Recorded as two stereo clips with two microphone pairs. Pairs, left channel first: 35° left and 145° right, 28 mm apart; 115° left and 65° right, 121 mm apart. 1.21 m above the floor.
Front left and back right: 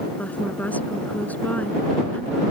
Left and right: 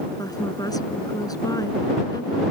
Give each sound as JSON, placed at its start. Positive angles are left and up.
{"t": 0.2, "sound": "a woman speaking", "azimuth_deg": 55}